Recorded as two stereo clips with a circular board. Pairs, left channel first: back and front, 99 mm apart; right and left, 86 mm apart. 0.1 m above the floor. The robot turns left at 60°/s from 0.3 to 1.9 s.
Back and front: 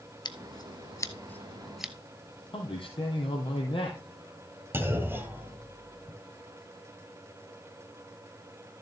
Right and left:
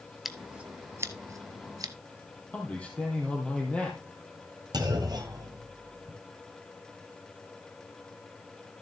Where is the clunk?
65° left, 1.8 m.